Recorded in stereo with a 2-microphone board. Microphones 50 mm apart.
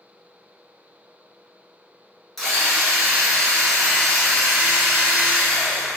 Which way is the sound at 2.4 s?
5° left (ahead or behind).